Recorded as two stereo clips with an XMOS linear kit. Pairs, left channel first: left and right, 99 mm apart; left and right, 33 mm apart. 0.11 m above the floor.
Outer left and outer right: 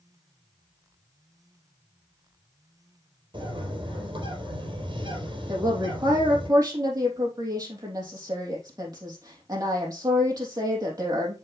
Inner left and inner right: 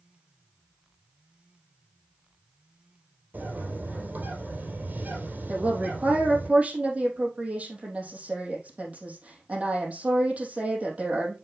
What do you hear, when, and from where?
3.3 s a bird: 55° right (ahead or behind), 3.5 m
5.5 s a woman speaking: 40° right (ahead or behind), 3.5 m